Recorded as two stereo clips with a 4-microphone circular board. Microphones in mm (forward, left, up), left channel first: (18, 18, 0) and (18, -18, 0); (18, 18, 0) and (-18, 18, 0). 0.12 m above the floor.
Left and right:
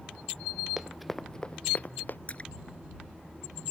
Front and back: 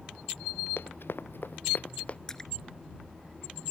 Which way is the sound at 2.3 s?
65° left.